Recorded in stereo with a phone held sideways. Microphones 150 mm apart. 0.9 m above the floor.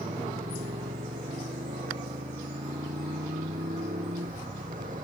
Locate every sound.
0.0 s a motorcycle: 60° right (ahead or behind)